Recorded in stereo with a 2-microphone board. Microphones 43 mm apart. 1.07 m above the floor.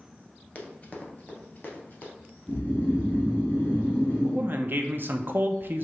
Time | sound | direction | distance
0.6 | running footsteps | 30° left (ahead or behind) | 1.2 m
2.5 | snoring | 40° left (ahead or behind) | 2 m
4.2 | a man speaking | 50° right (ahead or behind) | 0.5 m